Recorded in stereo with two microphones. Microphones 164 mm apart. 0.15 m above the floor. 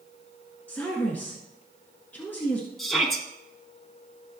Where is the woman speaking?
10° left (ahead or behind), 1.7 m.